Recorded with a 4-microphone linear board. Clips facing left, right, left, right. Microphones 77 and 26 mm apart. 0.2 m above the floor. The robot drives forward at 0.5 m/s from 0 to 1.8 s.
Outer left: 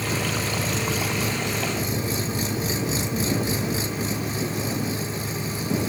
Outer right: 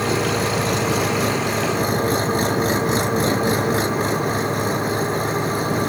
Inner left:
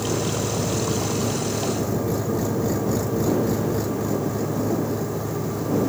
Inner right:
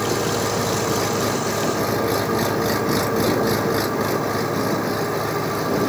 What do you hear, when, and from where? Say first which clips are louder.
0.0 s an engine running: outer right 7 dB, inner right 3 dB; 65° right (ahead or behind); by 5.9 s 60° right (ahead or behind)